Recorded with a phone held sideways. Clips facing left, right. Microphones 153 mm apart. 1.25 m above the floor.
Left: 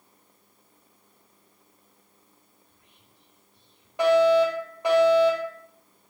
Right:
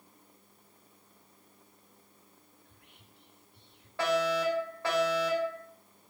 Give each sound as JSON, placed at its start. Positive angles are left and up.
{"t": 2.6, "sound": "whispering", "side_deg": -70, "distance_m": 3.5}
{"t": 4.0, "sound": "a fire alarm", "side_deg": 20, "distance_m": 8.5}